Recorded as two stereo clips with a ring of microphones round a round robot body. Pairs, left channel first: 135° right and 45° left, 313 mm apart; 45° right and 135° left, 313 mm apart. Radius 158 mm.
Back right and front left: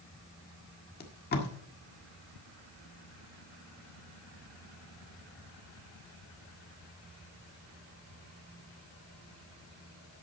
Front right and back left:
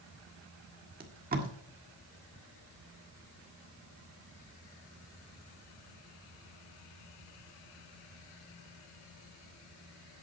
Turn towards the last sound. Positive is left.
turn(degrees=180)